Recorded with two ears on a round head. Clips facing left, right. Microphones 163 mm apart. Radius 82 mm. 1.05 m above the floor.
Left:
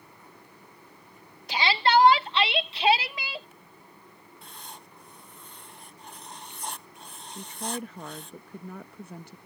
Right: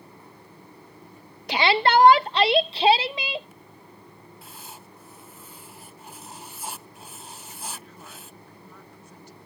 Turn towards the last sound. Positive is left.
turn(degrees=50)  # may be behind; listen again after turning